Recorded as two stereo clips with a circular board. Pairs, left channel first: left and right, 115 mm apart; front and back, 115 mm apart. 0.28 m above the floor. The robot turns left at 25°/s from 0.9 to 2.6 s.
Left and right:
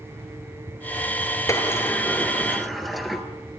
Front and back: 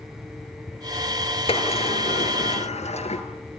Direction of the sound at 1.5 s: 30° left.